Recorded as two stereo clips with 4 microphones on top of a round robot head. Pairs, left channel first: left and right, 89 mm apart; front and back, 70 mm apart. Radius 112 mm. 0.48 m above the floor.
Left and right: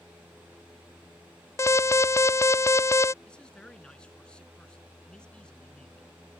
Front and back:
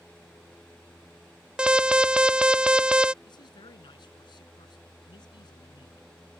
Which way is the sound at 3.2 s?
10° left.